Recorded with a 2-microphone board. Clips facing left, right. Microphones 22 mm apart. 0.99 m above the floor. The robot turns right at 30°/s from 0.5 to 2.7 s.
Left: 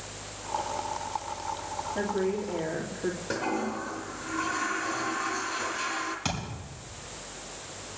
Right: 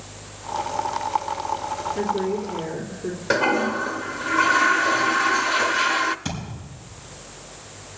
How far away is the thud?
About 5.5 m.